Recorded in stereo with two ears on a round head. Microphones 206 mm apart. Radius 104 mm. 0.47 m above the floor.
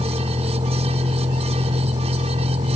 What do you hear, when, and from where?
0.0 s a vehicle: 20° right (ahead or behind); by 2.8 s 25° right (ahead or behind)